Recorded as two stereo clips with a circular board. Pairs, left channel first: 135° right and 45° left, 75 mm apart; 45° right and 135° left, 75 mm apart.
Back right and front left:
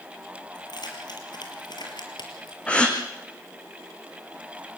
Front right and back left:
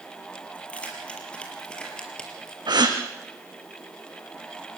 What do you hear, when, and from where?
0.6 s keys jangling: 120° right, 6 m; by 2.6 s 125° right, 4.5 m
2.7 s a gasp: 150° left, 3.5 m